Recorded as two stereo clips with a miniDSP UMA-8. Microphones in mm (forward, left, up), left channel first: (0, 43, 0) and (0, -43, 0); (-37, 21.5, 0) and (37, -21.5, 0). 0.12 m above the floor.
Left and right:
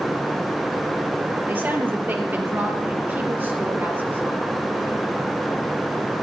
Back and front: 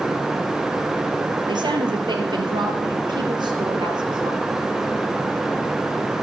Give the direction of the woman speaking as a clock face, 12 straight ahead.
1 o'clock.